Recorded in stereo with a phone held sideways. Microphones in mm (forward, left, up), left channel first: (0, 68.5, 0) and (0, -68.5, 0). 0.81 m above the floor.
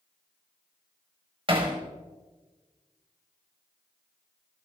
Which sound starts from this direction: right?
Hammering, at 1.5 s.